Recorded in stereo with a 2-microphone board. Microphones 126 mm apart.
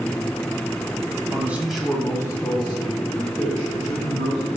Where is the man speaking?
20° right (ahead or behind), 1.1 m; by 4.5 s 60° left (ahead or behind), 2.5 m.